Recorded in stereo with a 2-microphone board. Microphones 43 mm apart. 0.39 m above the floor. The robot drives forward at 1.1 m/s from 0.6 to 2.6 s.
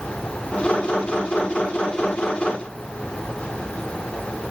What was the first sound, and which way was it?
Only background noise.